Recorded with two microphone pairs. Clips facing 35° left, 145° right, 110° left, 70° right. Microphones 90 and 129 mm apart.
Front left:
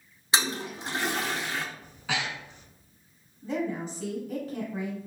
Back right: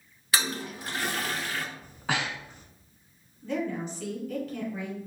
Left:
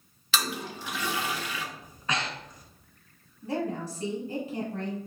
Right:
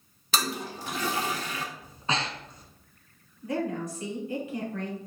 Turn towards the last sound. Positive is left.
turn(degrees=95)